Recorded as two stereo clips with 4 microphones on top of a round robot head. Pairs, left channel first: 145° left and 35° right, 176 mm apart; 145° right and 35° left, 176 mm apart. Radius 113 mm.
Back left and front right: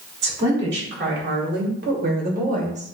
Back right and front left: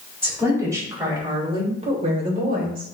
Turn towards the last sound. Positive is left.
turn(degrees=10)